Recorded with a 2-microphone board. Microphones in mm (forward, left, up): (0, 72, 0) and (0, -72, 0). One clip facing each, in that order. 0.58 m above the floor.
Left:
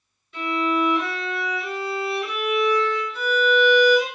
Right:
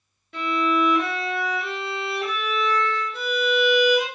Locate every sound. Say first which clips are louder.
0.3 s a violin: even; 60° right (ahead or behind), 1.1 m